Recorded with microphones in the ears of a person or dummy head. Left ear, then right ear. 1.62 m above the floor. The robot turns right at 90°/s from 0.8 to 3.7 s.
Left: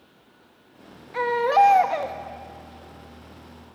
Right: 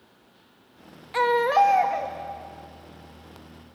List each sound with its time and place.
1.1 s a baby crying: 35° right, 1.2 m; by 2.1 s 55° left, 1.2 m